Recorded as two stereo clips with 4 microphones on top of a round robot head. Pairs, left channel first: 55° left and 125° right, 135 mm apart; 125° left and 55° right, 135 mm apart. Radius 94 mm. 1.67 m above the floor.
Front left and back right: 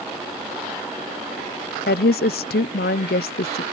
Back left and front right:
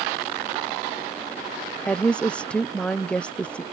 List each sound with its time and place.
1.9 s a woman speaking: 40° left